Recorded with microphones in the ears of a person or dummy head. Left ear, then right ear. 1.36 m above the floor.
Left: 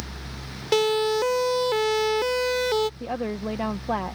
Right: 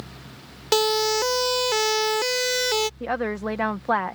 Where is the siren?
35° right (ahead or behind); by 2.9 s 40° right (ahead or behind).